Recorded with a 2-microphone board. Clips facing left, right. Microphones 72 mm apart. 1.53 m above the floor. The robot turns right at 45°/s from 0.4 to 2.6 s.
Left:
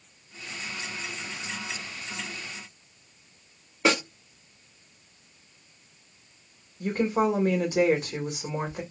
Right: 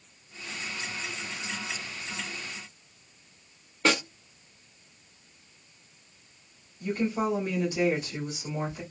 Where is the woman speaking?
70° left (ahead or behind), 1.4 m.